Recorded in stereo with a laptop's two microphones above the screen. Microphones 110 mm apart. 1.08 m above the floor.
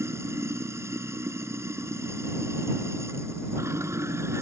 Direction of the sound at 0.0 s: 25° right (ahead or behind).